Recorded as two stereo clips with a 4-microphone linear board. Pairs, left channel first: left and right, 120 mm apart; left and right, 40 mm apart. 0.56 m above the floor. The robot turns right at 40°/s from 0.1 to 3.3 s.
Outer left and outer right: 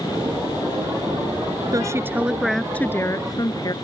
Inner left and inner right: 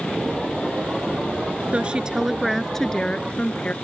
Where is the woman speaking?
30° right; by 3.8 s 35° left.